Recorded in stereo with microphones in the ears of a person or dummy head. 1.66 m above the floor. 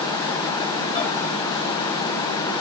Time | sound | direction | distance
0.9 | a microwave | 25° left (ahead or behind) | 7.5 m